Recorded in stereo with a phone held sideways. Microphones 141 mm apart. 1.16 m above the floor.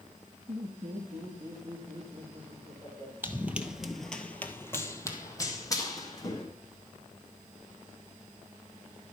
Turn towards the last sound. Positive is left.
turn(degrees=25)  # may be behind; listen again after turning